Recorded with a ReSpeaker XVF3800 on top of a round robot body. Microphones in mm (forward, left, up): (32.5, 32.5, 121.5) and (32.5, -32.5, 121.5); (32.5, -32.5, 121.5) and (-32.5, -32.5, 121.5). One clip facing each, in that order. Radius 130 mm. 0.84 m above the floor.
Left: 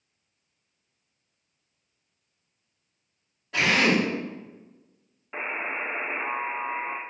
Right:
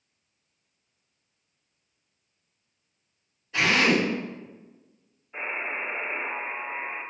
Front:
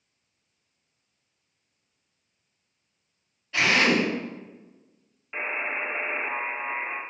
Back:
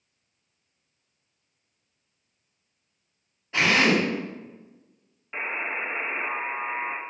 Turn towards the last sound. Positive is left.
turn(degrees=95)